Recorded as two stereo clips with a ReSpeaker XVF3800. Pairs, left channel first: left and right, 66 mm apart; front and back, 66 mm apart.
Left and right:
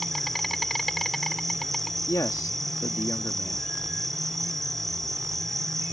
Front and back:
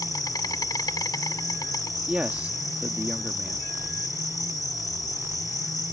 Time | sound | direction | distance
0.0 | an insect | straight ahead | ?
2.1 | a man speaking | 115° left | ?